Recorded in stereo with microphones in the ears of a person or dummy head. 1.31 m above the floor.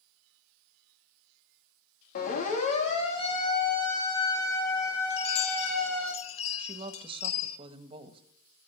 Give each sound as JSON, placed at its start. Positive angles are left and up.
{"t": 2.1, "sound": "a siren", "side_deg": 50, "distance_m": 3.5}
{"t": 5.1, "sound": "a chime", "side_deg": 35, "distance_m": 1.1}
{"t": 6.6, "sound": "a woman speaking", "side_deg": -30, "distance_m": 1.3}